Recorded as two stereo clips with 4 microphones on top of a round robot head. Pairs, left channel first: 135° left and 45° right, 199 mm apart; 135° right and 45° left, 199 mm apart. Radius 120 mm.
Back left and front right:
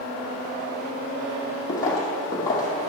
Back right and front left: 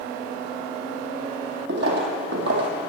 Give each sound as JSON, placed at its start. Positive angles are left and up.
{"t": 1.7, "sound": "footsteps", "azimuth_deg": 70, "distance_m": 2.0}